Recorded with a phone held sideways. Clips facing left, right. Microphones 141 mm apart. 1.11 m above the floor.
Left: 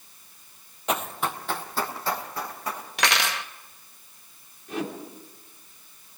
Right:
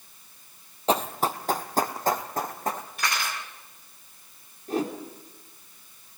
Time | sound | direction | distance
0.9 | running footsteps | 30° right (ahead or behind) | 1.3 m
3.0 | cutlery clinking | 80° left | 0.9 m
4.7 | a whoosh | 40° right (ahead or behind) | 3 m